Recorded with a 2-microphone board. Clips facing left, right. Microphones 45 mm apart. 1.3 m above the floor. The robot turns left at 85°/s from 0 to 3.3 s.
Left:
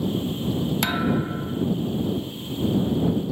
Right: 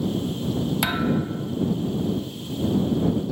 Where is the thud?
170° right; by 1.6 s 120° left.